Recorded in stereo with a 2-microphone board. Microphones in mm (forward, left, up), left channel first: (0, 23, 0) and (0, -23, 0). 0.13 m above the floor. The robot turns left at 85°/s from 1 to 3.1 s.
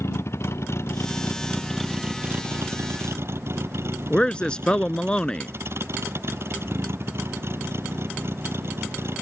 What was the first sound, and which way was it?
A vehicle, 75° left (ahead or behind).